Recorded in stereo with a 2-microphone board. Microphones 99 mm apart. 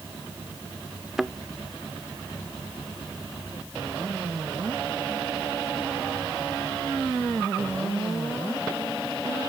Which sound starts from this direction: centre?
A thud, at 1.2 s.